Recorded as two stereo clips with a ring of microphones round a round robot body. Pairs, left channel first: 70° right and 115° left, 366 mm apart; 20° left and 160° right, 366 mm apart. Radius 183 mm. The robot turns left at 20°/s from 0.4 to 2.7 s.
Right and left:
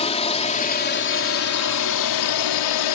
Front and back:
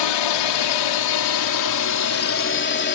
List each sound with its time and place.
0.0 s a drone: 5° left; by 3.0 s 40° right